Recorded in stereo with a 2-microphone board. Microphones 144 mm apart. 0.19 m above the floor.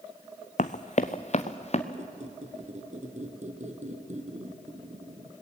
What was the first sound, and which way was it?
Running footsteps, 60° left (ahead or behind).